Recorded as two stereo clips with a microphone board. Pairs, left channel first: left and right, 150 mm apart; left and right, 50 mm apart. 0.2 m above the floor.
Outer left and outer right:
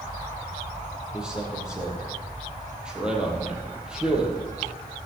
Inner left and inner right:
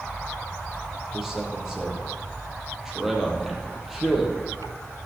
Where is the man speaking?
5° right (ahead or behind), 5.5 m.